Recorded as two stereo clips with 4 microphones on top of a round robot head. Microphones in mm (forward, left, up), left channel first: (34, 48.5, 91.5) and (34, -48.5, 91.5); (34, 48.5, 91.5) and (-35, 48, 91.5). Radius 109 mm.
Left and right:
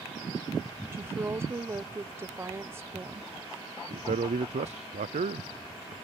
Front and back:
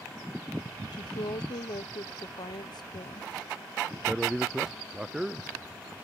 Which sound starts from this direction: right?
A man speaking, at 3.9 s.